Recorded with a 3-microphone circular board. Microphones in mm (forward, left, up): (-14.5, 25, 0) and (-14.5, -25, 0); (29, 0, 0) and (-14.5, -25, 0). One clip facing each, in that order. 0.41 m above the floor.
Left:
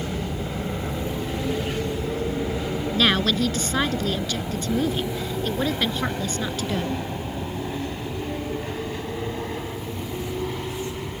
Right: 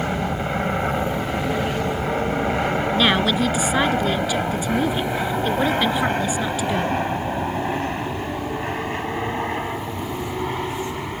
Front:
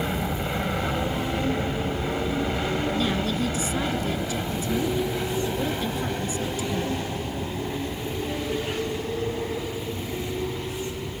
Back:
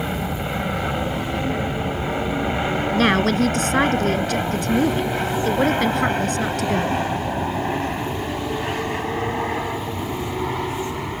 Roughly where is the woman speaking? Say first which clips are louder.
Right 1 dB, back 8 dB; behind.